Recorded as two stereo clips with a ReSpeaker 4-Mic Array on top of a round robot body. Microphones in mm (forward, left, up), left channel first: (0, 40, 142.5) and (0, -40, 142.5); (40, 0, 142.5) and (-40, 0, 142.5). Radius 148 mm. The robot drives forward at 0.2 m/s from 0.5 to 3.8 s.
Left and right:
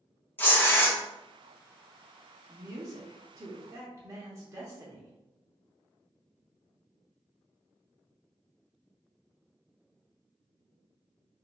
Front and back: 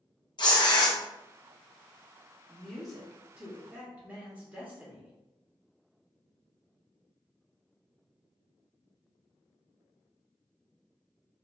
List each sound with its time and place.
0.4 s tearing paper: 25° left, 0.9 m; by 1.0 s 30° left, 0.8 m
2.5 s a woman speaking: 85° right, 0.8 m; by 5.1 s 115° right, 0.8 m